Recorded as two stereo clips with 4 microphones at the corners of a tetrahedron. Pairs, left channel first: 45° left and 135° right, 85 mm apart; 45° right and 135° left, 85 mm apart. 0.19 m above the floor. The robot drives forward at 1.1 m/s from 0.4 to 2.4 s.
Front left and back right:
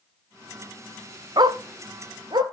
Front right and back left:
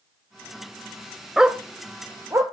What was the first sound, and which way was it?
A dog barking, 140° right.